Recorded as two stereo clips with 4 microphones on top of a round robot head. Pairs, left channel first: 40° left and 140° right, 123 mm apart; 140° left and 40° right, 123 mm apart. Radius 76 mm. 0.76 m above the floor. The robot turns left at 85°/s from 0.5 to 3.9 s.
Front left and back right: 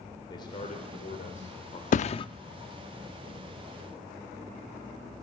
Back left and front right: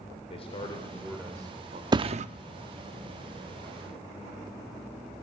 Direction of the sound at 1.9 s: 15° left.